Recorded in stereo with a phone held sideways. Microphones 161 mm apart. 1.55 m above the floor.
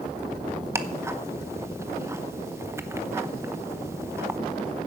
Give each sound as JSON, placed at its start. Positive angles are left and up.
{"t": 0.8, "sound": "ticking", "side_deg": -15, "distance_m": 0.8}